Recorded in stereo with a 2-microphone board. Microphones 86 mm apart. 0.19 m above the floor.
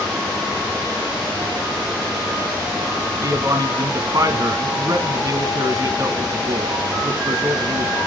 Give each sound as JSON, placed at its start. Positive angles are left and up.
{"t": 3.2, "sound": "a man speaking", "side_deg": -45, "distance_m": 1.6}